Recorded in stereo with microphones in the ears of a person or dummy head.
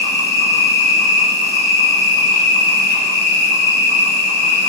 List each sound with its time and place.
0.0 s an insect: 70° left (ahead or behind), 4 m